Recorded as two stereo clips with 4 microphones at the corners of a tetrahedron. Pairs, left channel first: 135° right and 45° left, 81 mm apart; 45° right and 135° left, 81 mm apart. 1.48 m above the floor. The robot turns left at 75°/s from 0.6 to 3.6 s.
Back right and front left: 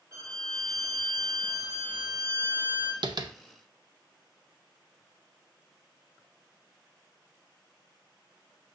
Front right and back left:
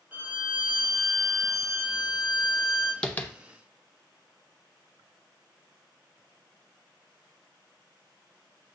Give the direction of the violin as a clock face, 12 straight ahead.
10 o'clock.